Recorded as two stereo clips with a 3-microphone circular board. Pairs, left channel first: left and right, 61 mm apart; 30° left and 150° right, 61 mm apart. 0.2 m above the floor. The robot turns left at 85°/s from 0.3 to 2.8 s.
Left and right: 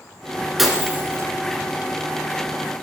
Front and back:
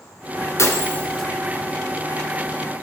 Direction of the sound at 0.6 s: Straight ahead.